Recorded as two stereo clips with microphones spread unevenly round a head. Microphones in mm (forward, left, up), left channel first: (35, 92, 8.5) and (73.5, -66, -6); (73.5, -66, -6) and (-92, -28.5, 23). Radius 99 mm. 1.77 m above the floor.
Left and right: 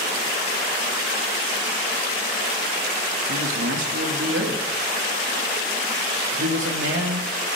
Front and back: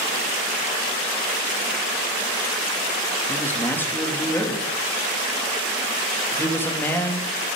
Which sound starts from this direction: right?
A man speaking, at 3.3 s.